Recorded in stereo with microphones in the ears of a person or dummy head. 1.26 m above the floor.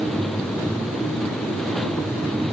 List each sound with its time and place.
Only background noise.